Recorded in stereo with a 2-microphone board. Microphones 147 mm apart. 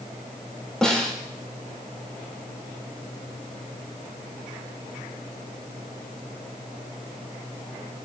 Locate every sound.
0.8 s a snare drum: 5° left (ahead or behind), 3 m